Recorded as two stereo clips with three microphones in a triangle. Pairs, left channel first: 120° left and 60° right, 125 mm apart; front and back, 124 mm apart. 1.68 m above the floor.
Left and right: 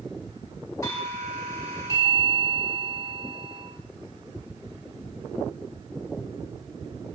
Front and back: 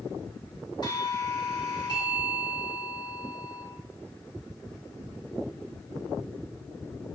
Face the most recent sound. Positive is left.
turn(degrees=55)